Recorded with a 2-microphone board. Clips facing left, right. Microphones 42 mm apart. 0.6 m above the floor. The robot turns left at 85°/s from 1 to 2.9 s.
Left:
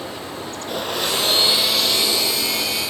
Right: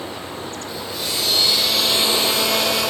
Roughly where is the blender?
Ahead left.